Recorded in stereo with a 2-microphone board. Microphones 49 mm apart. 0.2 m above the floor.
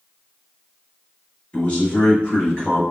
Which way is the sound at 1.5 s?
25° left (ahead or behind).